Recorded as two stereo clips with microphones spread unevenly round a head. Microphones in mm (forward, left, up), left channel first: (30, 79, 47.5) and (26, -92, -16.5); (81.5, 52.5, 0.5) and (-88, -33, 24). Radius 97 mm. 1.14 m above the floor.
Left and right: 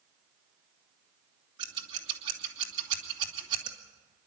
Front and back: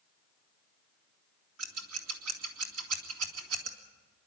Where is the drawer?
I don't hear a drawer.